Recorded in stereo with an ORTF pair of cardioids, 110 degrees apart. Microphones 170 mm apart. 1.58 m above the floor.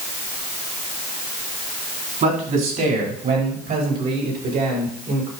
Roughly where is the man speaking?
Ahead right.